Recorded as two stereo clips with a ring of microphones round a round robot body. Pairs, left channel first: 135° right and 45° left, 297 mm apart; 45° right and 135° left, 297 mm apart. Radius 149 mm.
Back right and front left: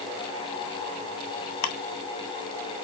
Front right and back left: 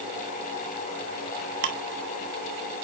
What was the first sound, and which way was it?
Ticking, 170° right.